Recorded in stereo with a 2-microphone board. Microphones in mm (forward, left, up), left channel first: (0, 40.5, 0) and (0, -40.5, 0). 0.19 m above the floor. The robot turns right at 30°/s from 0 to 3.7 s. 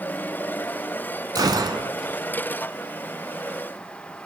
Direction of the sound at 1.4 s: 55° right (ahead or behind).